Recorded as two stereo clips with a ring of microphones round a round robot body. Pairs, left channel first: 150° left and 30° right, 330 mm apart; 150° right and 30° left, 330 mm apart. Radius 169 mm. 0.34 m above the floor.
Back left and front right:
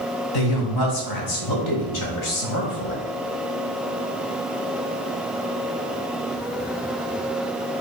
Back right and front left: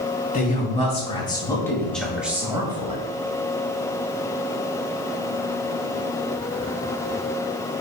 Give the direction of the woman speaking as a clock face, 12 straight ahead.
7 o'clock.